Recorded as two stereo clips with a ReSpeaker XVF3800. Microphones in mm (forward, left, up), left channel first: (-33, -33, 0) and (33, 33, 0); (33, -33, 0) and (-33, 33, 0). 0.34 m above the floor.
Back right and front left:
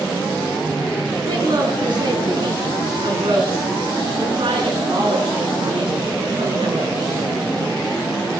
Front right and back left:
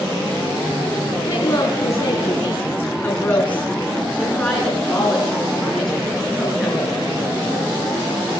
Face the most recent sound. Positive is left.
turn(degrees=45)